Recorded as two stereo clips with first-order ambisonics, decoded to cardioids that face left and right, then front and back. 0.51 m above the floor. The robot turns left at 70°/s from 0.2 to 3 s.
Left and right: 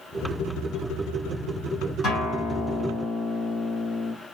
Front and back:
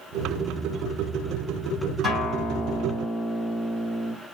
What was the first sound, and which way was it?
A guitar, 115° left.